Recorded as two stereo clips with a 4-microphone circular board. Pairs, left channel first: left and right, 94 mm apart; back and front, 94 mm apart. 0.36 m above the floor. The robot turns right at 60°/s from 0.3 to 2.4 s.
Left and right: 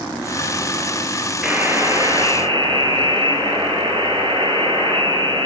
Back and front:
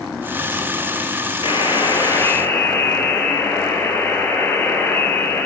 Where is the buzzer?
170° right, 1.5 m; by 5.5 s 110° right, 1.5 m.